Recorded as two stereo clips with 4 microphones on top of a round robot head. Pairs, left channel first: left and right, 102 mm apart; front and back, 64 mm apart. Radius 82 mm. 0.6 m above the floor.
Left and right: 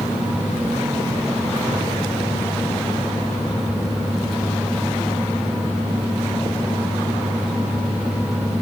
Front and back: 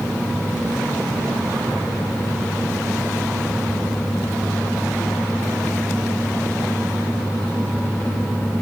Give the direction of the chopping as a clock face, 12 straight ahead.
No chopping in this recording.